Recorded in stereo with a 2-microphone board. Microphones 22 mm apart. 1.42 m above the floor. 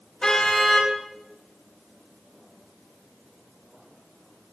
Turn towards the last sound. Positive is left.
turn(degrees=35)  # may be behind; listen again after turning